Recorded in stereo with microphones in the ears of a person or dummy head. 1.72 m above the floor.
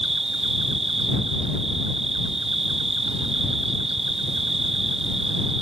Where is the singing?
No singing in this recording.